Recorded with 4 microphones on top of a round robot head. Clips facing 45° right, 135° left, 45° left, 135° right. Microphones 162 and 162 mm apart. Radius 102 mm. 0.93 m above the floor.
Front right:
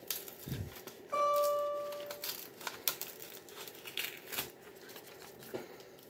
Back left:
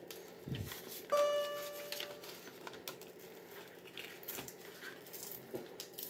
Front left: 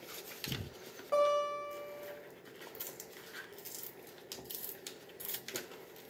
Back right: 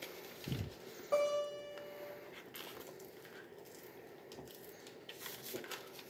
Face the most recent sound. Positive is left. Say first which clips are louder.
# front right 2 dB, front left 4 dB
turn(degrees=135)